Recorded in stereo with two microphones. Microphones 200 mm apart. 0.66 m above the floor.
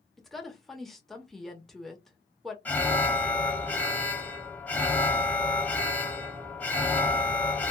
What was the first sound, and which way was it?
A woman speaking, centre (ahead or behind).